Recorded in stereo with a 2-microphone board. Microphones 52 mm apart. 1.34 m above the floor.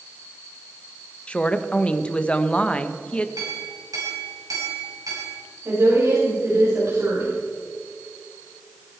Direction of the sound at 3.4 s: 85° right.